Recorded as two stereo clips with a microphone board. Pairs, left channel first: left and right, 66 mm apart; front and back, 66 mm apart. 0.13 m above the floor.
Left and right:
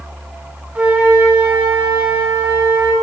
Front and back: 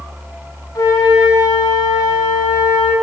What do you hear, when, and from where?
0.8 s a flute: 20° right, 5.5 m